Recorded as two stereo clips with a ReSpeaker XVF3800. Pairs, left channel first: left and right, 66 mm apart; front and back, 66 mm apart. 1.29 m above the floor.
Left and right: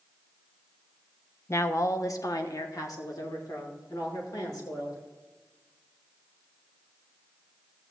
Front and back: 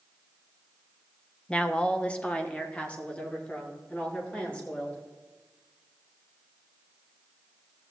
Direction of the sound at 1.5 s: 65° left.